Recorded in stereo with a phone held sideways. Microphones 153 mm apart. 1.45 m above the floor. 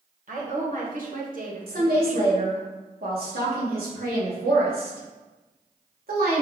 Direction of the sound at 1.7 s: 80° right.